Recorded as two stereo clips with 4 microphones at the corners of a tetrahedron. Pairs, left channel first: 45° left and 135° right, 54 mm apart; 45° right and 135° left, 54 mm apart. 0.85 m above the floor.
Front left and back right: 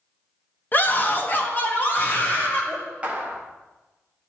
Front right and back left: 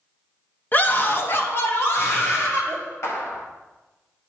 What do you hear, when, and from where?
0.7 s a scream: straight ahead, 0.8 m; by 2.8 s 10° right, 2 m
3.0 s a clap: 70° right, 1.2 m